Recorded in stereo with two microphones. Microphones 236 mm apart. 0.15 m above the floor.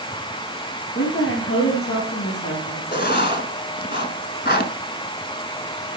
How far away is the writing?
About 1.0 m.